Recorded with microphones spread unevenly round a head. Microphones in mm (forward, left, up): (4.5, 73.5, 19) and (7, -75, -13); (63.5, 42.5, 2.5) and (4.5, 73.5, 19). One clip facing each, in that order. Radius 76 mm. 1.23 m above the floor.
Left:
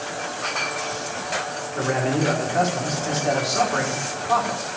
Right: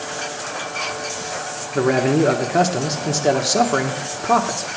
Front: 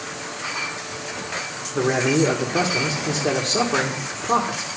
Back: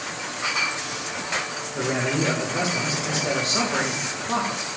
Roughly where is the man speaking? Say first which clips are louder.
Right 7 dB, front 6 dB; right.